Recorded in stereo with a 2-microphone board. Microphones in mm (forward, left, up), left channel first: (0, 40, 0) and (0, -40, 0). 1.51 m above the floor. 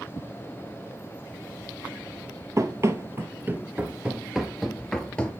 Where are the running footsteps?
40° right (ahead or behind), 1.9 m; by 5.3 s 15° left (ahead or behind), 1.5 m.